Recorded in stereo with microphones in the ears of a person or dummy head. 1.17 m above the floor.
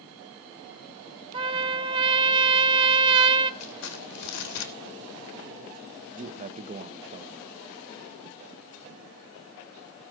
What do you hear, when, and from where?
1.3 s a trumpet: 25° right (ahead or behind), 0.8 m
3.6 s crumpling: 80° left, 2 m
6.1 s a man speaking: 30° right (ahead or behind), 1.1 m